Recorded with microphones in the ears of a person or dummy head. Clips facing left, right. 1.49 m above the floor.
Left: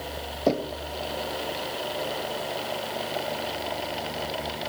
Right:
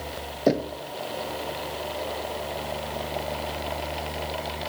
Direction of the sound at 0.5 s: 15° right (ahead or behind).